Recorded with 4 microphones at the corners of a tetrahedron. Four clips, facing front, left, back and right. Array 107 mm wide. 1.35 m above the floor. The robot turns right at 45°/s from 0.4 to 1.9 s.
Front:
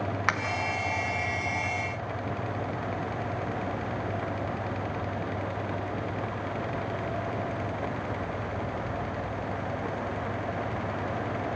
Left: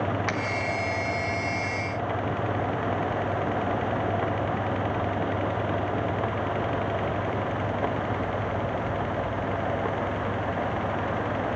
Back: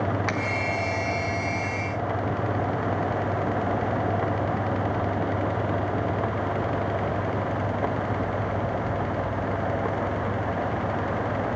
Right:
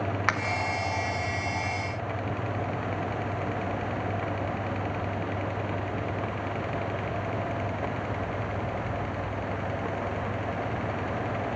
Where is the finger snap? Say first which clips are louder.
Right 2 dB, even; 45° right, 1.5 m.